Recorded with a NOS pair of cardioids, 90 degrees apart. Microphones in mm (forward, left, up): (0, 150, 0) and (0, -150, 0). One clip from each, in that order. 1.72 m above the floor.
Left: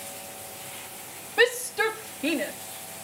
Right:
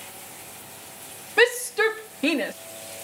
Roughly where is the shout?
Ahead right.